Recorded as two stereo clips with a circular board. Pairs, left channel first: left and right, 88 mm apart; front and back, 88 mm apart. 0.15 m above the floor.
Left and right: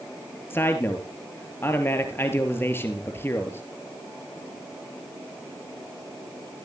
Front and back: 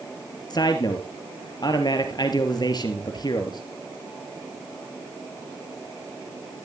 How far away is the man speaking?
About 2.5 m.